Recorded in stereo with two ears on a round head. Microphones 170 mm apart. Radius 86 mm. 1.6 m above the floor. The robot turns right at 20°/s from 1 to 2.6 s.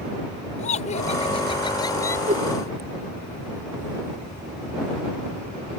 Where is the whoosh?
40° right (ahead or behind); by 2.5 s 35° right (ahead or behind).